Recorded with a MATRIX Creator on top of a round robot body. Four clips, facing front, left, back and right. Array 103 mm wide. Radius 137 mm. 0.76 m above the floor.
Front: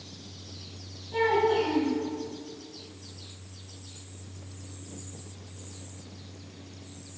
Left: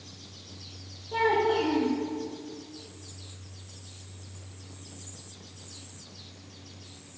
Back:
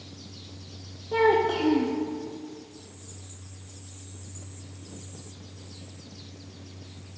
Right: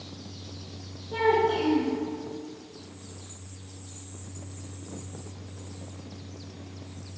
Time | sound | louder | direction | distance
1.1 | a child speaking | right 1 dB, back 2 dB | straight behind | 1.4 m